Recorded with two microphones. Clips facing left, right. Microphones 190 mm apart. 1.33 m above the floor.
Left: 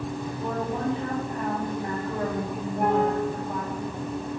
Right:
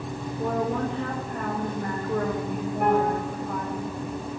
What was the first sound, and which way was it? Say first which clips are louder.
A woman speaking: right 4 dB; 85° right.